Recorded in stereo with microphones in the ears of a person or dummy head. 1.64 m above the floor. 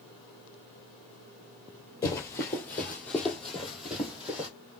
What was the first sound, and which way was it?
Running footsteps, 15° left (ahead or behind).